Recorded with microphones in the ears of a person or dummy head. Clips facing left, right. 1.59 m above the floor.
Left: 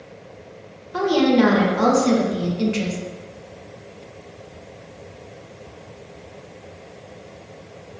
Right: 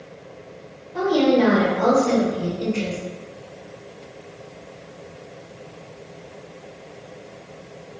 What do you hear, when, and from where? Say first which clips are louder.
0.9 s a woman speaking: left 1 dB; 85° left, 2.0 m